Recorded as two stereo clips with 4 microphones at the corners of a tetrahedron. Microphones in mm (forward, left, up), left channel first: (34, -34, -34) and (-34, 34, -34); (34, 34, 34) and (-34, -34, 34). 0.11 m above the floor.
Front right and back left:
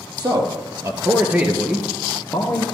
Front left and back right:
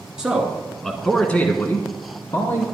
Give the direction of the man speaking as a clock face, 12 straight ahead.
7 o'clock.